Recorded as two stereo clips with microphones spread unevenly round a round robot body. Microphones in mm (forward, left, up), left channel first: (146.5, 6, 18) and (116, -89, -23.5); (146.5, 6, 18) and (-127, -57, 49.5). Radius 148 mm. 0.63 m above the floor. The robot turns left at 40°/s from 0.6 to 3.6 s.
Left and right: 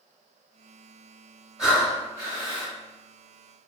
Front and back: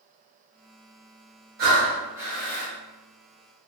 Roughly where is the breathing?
Behind left.